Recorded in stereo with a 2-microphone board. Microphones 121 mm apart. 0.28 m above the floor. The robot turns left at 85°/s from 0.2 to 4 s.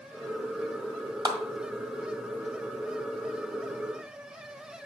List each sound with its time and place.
1.2 s a clap: 30° right (ahead or behind), 1.7 m; by 1.4 s 25° right (ahead or behind), 1.7 m